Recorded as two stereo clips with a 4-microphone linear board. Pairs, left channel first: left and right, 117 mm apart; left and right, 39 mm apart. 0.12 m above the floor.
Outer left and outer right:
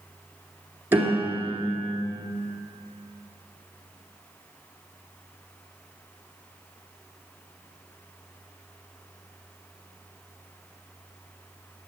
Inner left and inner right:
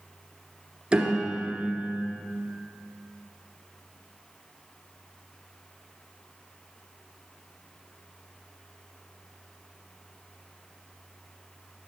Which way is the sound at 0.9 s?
20° right (ahead or behind).